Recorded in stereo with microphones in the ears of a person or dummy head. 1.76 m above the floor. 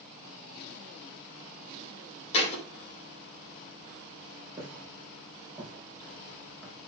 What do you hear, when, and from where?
2.3 s a thud: 40° left (ahead or behind), 4 m
4.6 s footsteps: 20° right (ahead or behind), 4.5 m; by 6.8 s centre (ahead or behind), 4.5 m